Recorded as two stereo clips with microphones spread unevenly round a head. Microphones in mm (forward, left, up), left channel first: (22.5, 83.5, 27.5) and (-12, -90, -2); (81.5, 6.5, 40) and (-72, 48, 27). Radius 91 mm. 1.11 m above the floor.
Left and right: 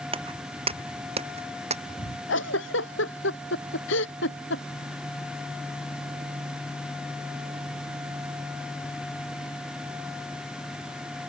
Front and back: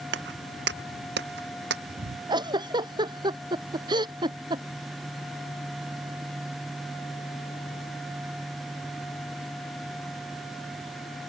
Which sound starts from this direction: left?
A giggle, at 2.3 s.